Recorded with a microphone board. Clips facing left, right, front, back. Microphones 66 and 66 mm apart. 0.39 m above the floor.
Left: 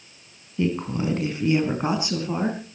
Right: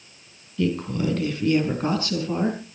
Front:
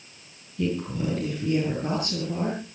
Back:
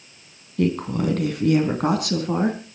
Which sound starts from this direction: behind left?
A woman speaking, at 0.6 s.